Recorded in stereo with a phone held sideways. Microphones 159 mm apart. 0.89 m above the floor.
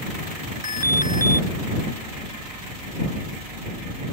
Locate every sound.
0.6 s an alarm: 20° right (ahead or behind)